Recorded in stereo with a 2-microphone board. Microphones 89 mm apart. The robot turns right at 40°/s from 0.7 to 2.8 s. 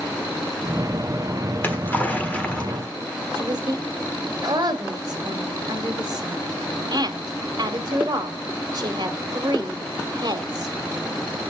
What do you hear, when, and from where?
1.5 s a splash: 20° left (ahead or behind), 1.4 m; by 2.9 s 10° left (ahead or behind), 1.4 m
3.4 s a woman speaking: 50° right (ahead or behind), 1.5 m